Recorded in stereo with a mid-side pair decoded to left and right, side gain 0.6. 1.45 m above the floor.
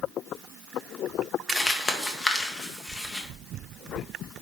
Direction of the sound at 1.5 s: 15° left.